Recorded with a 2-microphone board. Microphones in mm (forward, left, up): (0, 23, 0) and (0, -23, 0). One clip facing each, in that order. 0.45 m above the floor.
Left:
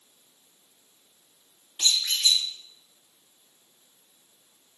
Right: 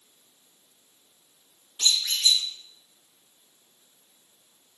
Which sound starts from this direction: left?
A squeak, at 1.8 s.